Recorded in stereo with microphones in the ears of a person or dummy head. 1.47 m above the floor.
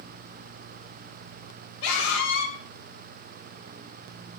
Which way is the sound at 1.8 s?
80° left.